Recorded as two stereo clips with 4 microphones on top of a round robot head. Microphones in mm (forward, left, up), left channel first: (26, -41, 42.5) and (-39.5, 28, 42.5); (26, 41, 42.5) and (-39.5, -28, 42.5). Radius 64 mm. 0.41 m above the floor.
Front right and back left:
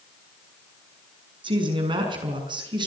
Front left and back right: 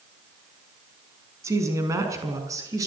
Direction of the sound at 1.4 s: 165° left.